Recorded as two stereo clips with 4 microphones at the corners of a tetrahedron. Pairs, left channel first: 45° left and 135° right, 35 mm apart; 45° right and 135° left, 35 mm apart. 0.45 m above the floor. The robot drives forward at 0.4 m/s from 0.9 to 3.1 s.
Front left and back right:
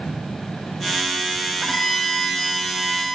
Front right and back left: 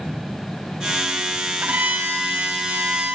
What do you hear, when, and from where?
1.6 s a violin: 130° left, 2.5 m; by 3.1 s 140° left, 3 m